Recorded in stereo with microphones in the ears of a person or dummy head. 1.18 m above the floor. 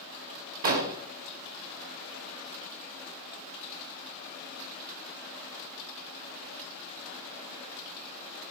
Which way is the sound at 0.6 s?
45° right (ahead or behind).